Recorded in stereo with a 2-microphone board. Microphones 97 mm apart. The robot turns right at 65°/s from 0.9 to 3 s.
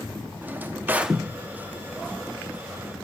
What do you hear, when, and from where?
0.4 s a drawer: 20° right (ahead or behind), 1.1 m; by 1.2 s centre (ahead or behind), 1.1 m